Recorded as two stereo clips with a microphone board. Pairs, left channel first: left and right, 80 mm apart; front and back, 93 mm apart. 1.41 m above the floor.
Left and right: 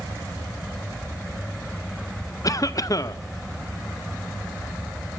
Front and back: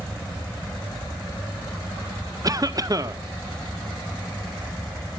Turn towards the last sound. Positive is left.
turn(degrees=135)